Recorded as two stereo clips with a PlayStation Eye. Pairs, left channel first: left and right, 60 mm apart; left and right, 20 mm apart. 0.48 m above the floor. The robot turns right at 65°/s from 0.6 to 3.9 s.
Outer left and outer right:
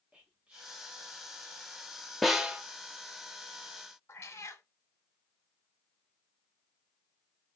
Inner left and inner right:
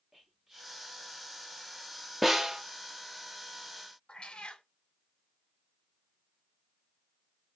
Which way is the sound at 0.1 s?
20° right (ahead or behind).